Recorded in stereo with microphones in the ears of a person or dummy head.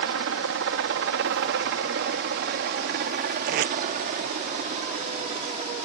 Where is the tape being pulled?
55° right (ahead or behind).